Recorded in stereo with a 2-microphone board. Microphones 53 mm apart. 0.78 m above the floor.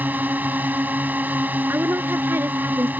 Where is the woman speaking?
45° right (ahead or behind).